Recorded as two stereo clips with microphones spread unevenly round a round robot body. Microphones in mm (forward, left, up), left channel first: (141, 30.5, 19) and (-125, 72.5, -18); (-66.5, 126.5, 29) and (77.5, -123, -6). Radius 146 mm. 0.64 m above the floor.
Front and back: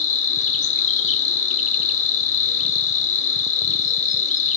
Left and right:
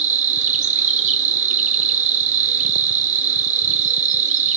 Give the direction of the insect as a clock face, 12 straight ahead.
2 o'clock.